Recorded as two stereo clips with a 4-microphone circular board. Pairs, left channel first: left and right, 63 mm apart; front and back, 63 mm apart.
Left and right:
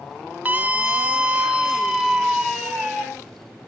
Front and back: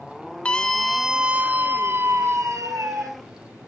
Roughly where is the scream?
Ahead right.